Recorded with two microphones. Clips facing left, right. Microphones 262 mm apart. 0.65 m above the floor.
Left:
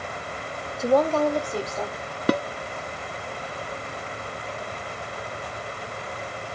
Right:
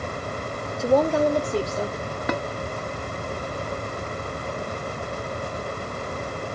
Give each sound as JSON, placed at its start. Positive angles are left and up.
{"t": 0.8, "sound": "a woman speaking", "side_deg": 5, "distance_m": 0.9}
{"t": 2.3, "sound": "dishes clattering", "side_deg": 40, "distance_m": 0.5}